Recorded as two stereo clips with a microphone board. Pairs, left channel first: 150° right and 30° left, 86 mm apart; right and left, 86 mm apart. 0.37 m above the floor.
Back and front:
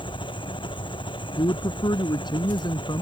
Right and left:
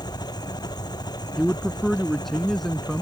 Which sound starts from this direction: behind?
A man speaking, at 1.4 s.